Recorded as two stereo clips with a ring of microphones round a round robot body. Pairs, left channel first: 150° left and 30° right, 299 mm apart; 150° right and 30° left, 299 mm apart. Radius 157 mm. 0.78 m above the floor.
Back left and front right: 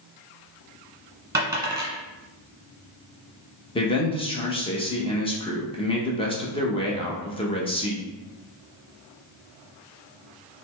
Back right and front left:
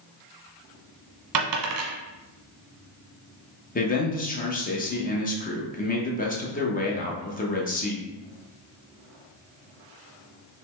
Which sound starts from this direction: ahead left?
A dropped coin, at 1.3 s.